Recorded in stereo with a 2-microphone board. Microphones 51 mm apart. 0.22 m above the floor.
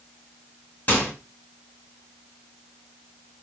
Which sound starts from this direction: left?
A microwave, at 0.9 s.